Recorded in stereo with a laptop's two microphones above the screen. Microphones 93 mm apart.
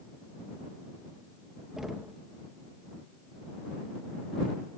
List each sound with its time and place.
1.8 s knocking: 5° right (ahead or behind)